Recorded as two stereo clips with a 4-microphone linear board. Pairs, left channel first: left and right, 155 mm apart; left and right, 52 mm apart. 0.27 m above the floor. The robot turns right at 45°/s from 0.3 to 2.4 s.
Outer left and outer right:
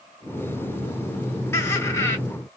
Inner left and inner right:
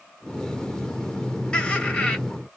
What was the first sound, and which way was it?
Laughter, 15° left (ahead or behind).